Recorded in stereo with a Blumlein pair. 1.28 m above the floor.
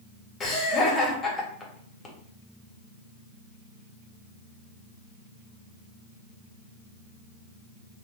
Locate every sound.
0.4 s laughter: 20° left, 1.5 m